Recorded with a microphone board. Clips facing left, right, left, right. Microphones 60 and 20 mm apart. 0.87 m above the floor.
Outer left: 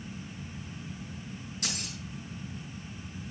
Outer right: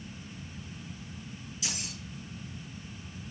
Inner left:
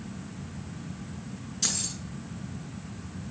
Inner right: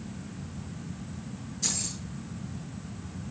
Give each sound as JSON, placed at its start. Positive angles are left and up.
{"t": 1.6, "sound": "keys jangling", "side_deg": 50, "distance_m": 6.5}